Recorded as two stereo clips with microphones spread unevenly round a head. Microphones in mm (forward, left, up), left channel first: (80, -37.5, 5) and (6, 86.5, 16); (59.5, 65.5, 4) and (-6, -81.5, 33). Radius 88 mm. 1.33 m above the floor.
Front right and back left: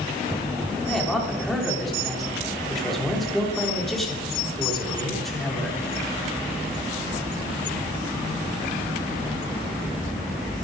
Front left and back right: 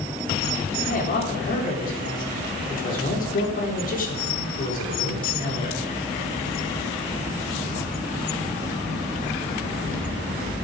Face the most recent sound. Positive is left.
turn(degrees=30)